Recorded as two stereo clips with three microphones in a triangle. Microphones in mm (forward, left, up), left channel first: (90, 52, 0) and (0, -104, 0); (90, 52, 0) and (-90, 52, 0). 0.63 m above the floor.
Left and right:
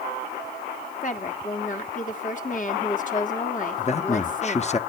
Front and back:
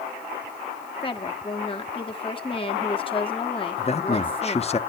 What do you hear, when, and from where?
1.0 s a woman speaking: 50° left, 1.5 m
3.8 s a man speaking: 35° left, 0.8 m